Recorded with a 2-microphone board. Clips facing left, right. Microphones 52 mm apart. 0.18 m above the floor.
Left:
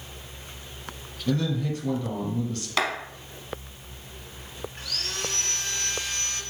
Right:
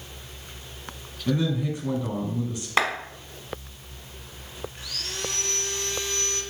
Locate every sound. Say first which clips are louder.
1.3 s a man speaking: right 1 dB; 15° right (ahead or behind), 1.2 m
2.8 s a clap: right 3 dB; 25° right (ahead or behind), 0.9 m
4.8 s sawing: left 2 dB; 45° left (ahead or behind), 1.4 m